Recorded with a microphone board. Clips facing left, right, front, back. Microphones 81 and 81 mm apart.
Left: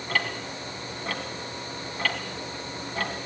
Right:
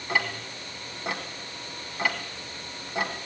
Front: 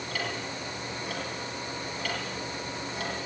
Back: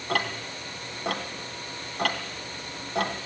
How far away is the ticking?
About 3 m.